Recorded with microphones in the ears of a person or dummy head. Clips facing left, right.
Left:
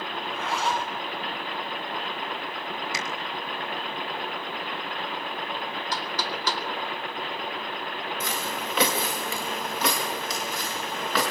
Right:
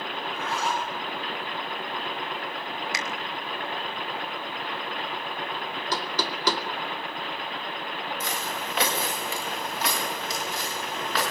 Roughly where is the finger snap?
Right.